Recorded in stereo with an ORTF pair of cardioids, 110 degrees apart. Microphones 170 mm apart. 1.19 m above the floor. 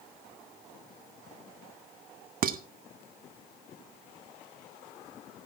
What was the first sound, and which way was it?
Dishes clattering, 55° right.